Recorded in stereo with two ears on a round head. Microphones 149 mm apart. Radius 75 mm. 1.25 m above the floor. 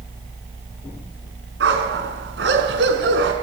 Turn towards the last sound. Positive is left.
turn(degrees=-75)  # may be behind; listen again after turning